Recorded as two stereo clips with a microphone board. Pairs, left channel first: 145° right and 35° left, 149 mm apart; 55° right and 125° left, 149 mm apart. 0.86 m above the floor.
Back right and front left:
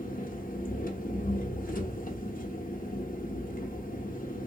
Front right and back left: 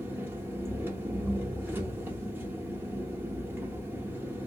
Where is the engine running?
160° right, 0.7 m.